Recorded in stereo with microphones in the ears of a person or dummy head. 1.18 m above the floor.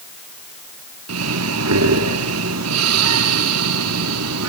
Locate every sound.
1.1 s breathing: 80° right, 3 m